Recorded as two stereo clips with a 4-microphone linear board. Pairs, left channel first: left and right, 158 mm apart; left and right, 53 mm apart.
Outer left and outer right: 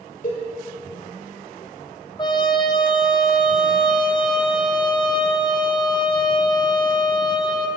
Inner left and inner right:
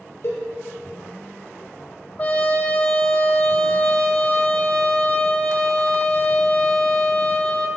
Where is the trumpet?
30° left (ahead or behind), 1.1 m.